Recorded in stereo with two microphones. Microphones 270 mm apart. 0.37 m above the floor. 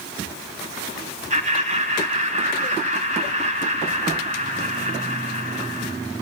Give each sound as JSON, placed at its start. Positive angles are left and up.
{"t": 1.3, "sound": "laughter", "side_deg": -25, "distance_m": 3.0}